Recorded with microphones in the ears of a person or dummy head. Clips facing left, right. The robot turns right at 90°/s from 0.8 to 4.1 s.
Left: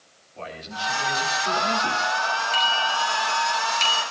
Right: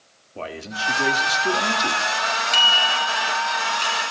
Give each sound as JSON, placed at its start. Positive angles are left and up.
{"t": 0.3, "sound": "a man speaking", "azimuth_deg": -125, "distance_m": 3.0}
{"t": 2.5, "sound": "a bicycle bell", "side_deg": -65, "distance_m": 7.5}